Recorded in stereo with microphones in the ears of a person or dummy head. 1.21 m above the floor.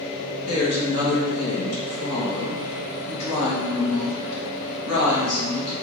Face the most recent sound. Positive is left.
turn(degrees=80)